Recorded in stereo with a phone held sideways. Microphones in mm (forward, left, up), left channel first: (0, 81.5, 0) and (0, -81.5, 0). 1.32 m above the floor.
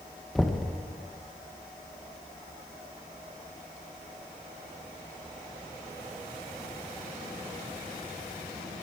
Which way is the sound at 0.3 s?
Centre (ahead or behind).